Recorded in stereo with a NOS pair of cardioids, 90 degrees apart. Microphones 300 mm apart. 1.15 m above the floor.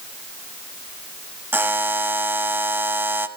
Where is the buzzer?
5° right, 1.1 m.